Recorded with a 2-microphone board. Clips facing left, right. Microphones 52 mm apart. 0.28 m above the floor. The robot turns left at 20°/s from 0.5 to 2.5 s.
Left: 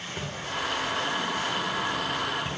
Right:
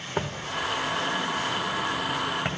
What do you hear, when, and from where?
0.2 s footsteps: 55° right (ahead or behind), 0.9 m; by 2.5 s 70° right (ahead or behind), 2.5 m